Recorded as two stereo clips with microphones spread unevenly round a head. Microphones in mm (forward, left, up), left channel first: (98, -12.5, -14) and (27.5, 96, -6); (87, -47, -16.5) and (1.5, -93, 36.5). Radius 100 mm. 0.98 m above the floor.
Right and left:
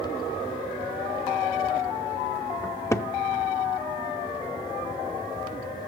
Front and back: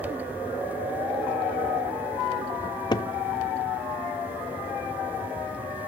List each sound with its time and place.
2.6 s a cupboard door: 30° right, 0.6 m